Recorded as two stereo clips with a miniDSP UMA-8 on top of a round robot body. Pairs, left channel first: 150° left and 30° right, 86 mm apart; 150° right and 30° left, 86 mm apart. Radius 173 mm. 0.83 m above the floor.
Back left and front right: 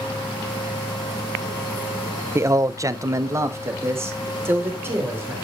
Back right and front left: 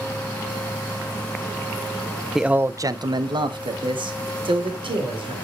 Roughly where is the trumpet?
No trumpet in this recording.